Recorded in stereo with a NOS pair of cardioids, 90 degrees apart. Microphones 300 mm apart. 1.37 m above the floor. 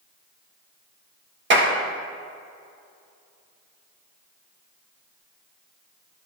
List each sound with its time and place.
1.5 s a clap: 35° right, 1.6 m